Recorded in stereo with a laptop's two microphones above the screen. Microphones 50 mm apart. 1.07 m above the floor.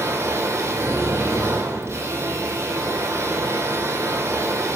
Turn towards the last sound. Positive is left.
turn(degrees=-65)  # may be behind; listen again after turning